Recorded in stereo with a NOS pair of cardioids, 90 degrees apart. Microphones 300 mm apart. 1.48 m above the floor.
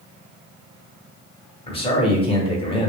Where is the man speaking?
20° left, 1.3 m.